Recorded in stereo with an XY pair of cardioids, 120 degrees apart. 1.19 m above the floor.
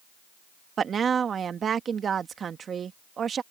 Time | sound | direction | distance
0.8 | a woman speaking | 40° right | ?